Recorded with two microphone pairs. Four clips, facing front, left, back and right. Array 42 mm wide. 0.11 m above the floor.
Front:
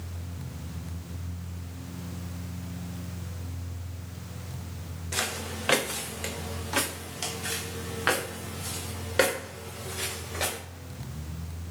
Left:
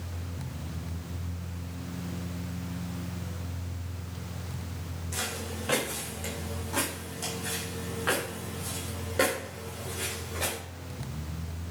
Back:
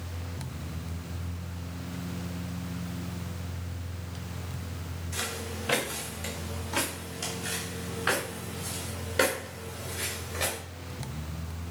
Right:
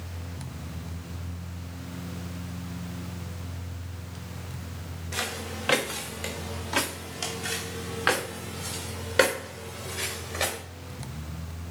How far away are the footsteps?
About 1.3 m.